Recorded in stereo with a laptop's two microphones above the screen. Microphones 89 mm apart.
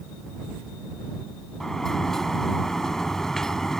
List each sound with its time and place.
1.6 s a sliding door: 5° left (ahead or behind)